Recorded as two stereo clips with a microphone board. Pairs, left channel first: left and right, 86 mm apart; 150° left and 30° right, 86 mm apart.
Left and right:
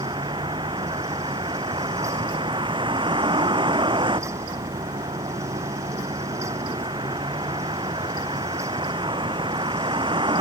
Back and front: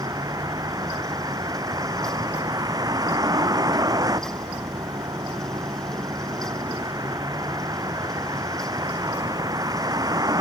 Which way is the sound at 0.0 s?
75° right.